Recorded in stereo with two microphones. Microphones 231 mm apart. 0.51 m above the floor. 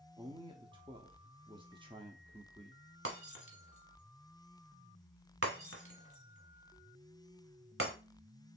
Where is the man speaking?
20° right (ahead or behind), 0.7 m.